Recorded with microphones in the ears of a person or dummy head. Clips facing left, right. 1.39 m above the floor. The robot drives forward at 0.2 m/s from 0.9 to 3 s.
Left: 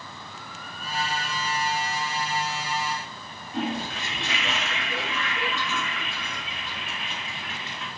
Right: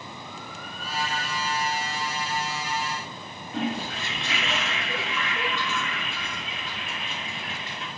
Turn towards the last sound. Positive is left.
turn(degrees=-20)  # may be behind; listen again after turning